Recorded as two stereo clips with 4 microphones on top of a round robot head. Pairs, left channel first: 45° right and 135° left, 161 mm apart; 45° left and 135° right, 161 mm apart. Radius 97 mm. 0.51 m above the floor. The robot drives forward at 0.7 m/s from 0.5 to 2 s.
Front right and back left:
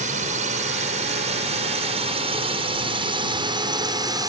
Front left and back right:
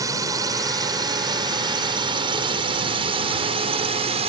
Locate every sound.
0.0 s a drone: 160° left; by 4.3 s 165° right